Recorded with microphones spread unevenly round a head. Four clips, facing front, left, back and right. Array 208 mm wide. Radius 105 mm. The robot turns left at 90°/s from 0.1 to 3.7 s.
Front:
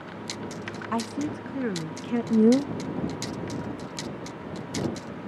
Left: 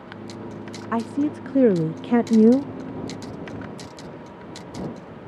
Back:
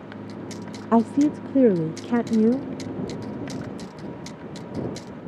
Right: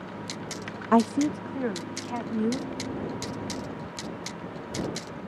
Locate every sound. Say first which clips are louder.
0.9 s a woman speaking: right 2 dB, back 11 dB; 160° right; by 2.7 s 40° left